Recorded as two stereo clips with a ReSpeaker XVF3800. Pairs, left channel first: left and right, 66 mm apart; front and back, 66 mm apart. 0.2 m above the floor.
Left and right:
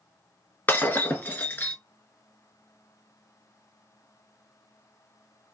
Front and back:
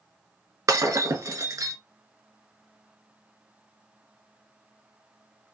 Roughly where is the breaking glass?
Behind left.